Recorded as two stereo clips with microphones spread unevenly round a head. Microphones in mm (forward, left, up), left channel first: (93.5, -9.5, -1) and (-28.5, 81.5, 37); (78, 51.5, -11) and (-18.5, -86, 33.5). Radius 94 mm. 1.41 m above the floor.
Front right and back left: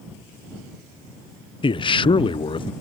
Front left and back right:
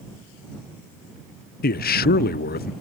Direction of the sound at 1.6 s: 20° left.